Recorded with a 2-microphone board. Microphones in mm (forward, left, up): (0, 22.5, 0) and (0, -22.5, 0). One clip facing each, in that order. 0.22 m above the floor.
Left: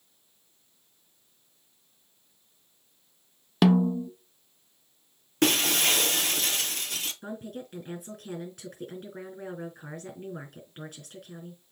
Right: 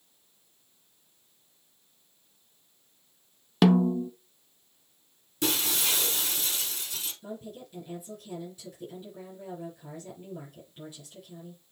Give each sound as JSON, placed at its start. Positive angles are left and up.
{"t": 3.6, "sound": "a snare drum", "side_deg": 0, "distance_m": 0.6}
{"t": 5.4, "sound": "breaking glass", "side_deg": 60, "distance_m": 1.0}
{"t": 7.2, "sound": "a woman speaking", "side_deg": 65, "distance_m": 3.5}